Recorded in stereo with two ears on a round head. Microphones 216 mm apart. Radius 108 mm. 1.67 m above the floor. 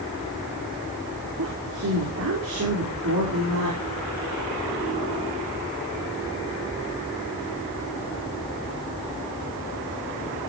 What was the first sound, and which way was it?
A woman speaking, 70° right (ahead or behind).